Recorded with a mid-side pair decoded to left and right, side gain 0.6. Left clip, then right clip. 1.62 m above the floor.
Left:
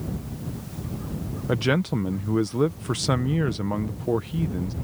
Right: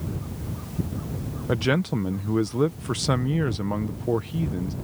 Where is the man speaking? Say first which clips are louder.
Even; straight ahead.